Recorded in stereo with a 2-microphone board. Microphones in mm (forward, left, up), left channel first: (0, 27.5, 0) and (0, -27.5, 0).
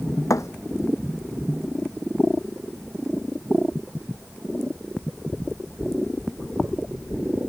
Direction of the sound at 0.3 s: 80° left.